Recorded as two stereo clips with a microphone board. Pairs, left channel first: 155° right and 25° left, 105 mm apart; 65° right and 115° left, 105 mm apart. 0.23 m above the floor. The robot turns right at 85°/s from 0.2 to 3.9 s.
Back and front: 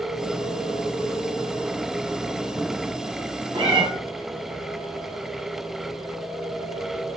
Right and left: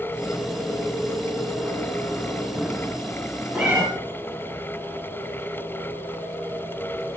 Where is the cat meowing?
35° left, 0.8 m; by 3.9 s 65° left, 0.8 m.